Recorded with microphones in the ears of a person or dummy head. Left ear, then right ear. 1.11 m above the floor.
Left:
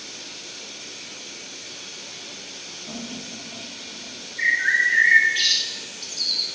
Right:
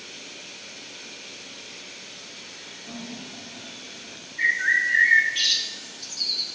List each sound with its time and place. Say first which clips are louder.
2.9 s laughter: left 2 dB; 45° left (ahead or behind), 3 m; by 4.2 s 60° left (ahead or behind), 3.5 m
4.4 s a bird: left 2 dB; 5° right (ahead or behind), 1.4 m